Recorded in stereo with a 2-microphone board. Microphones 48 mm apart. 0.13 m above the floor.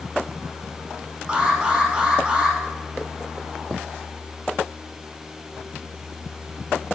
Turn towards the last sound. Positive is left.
turn(degrees=-15)  # may be behind; listen again after turning